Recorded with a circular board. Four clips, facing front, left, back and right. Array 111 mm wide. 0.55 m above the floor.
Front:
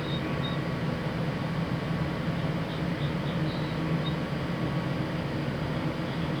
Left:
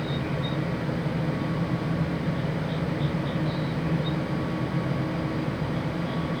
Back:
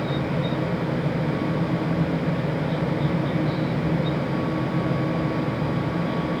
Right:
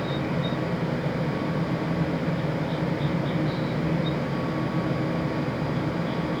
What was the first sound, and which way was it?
Only background noise.